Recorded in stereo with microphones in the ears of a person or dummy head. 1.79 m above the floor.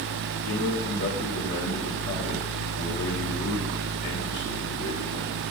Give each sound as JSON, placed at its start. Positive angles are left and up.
{"t": 0.5, "sound": "a man speaking", "side_deg": 60, "distance_m": 4.0}